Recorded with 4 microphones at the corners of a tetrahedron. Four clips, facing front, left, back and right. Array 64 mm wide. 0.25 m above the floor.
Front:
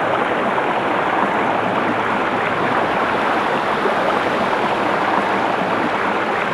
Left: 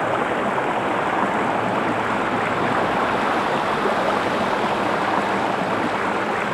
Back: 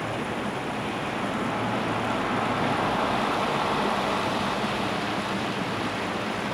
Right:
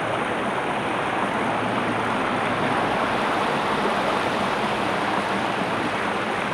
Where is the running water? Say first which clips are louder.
Left 3 dB, front 12 dB; 15° left.